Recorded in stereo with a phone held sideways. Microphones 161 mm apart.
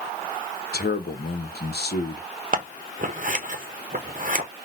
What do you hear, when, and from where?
0.7 s a man speaking: 80° left, 0.8 m
2.5 s scissors: 55° right (ahead or behind), 0.8 m